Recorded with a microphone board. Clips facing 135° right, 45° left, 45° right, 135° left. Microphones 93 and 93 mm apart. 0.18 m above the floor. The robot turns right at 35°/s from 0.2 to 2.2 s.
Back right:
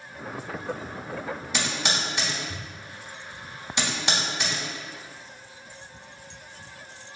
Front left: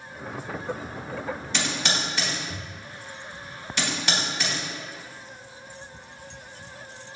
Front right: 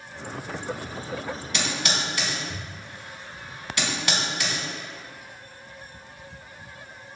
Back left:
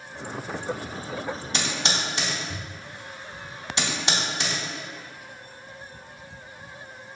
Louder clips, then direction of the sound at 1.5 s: Even, front right 1 dB; 150° left.